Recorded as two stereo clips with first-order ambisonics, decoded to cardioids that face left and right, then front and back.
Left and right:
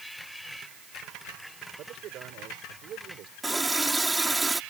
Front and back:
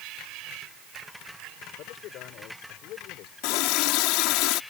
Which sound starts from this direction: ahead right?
A man speaking, at 1.8 s.